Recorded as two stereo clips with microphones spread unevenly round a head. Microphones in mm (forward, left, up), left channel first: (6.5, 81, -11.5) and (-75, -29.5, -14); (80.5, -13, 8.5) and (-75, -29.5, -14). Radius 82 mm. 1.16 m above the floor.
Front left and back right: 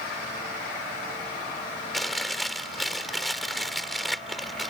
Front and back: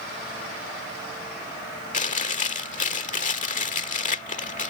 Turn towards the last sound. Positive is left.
turn(degrees=-35)